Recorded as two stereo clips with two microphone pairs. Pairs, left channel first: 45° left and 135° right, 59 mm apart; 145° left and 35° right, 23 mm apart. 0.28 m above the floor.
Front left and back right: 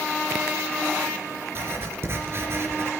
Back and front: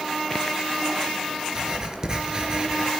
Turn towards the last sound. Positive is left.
turn(degrees=-90)